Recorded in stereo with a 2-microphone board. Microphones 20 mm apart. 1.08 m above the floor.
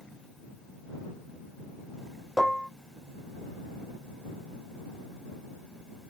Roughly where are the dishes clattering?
Centre.